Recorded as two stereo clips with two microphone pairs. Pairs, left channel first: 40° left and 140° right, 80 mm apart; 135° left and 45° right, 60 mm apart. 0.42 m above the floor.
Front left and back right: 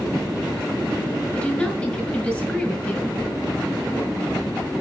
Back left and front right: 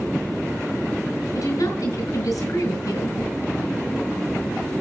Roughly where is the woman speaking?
Behind left.